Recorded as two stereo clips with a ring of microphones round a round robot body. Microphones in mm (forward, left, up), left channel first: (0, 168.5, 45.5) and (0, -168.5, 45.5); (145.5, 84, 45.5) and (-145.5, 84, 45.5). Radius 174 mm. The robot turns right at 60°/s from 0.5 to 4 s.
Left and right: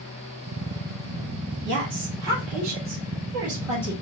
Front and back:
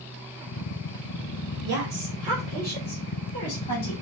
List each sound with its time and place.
1.6 s a woman speaking: 145° right, 1.7 m; by 3.9 s 10° right, 1.7 m